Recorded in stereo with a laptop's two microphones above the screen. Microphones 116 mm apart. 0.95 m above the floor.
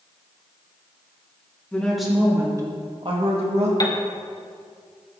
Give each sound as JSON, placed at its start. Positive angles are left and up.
{"t": 1.7, "sound": "a woman speaking", "side_deg": 10, "distance_m": 1.0}
{"t": 3.8, "sound": "a piano", "side_deg": 35, "distance_m": 0.9}